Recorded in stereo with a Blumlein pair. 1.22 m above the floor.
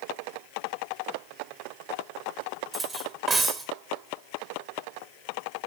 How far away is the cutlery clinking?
About 1.0 m.